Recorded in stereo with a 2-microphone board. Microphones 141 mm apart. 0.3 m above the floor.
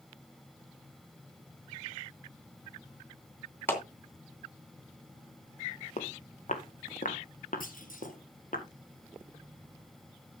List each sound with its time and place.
3.7 s a clap: 15° left (ahead or behind), 2.5 m
6.0 s footsteps: 60° left (ahead or behind), 1.9 m; by 8.6 s 80° left, 3 m
7.6 s a clunk: 80° left, 2 m